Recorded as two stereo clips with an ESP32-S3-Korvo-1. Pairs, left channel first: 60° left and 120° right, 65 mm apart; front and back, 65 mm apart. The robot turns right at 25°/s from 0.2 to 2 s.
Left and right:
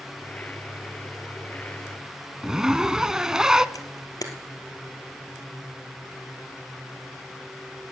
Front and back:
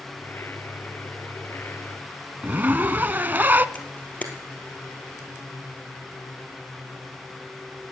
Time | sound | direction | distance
2.4 | a zipper | 170° left | 0.5 m
3.8 | a camera shutter | 65° left | 1.9 m